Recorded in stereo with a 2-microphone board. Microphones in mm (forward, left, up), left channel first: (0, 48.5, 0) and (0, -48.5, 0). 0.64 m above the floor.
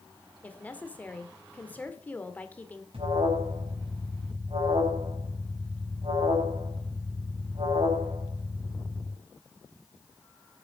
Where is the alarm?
75° right (ahead or behind), 5 m.